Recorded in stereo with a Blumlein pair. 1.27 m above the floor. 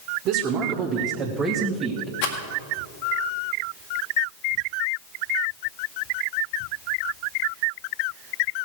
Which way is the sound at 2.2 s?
50° left.